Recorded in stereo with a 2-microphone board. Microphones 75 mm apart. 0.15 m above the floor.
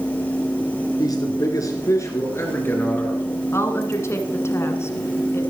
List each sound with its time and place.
1.0 s a man speaking: 55° left (ahead or behind), 2.5 m; by 3.4 s 20° left (ahead or behind), 3.5 m
3.5 s a woman speaking: 35° left (ahead or behind), 1.6 m